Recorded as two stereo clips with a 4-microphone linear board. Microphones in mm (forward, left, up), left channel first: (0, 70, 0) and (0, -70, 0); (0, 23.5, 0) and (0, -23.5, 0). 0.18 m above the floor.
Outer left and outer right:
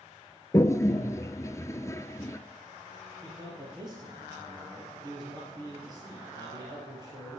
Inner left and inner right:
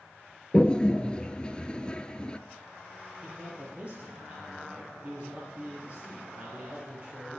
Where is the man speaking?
35° right (ahead or behind), 4.5 m.